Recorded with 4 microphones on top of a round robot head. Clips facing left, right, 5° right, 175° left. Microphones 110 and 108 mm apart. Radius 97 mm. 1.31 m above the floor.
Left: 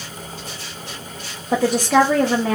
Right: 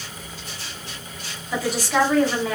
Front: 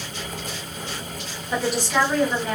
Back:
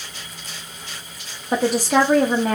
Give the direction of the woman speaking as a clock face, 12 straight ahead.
8 o'clock.